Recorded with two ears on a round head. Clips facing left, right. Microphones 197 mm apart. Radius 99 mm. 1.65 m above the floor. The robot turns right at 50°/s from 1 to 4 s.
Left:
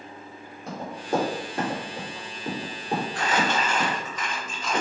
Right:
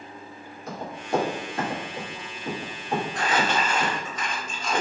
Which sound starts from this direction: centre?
Crumpling, at 3.1 s.